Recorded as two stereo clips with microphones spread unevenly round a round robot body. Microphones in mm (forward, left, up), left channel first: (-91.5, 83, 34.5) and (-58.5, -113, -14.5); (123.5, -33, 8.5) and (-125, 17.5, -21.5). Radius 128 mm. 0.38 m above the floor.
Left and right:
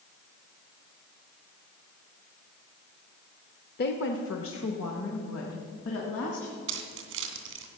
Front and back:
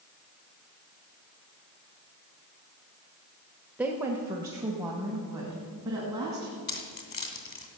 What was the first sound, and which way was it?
A woman speaking, 100° left.